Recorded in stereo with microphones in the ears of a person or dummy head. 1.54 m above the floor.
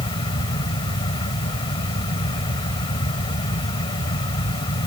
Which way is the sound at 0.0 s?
35° left (ahead or behind).